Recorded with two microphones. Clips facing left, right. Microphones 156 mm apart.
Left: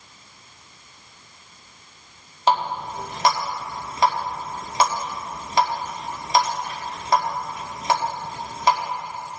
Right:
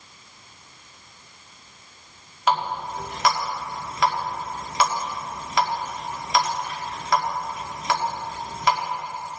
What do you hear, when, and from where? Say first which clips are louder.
2.5 s a running tap: left 2 dB; 30° left (ahead or behind), 2 m